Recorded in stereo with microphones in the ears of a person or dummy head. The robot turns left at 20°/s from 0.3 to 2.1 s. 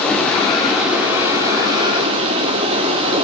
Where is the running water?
5° left, 3 m; by 3.2 s 35° right, 3 m.